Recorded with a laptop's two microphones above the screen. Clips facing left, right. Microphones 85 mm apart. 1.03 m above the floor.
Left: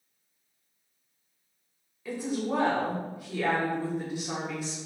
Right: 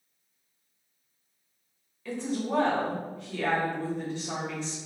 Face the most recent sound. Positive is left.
turn(degrees=10)  # may be behind; listen again after turning